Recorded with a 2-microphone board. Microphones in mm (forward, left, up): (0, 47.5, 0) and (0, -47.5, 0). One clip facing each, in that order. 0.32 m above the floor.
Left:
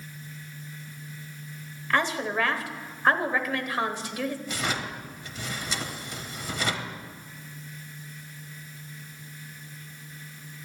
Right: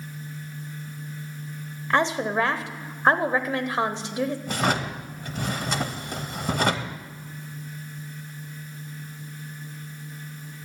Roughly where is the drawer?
Right.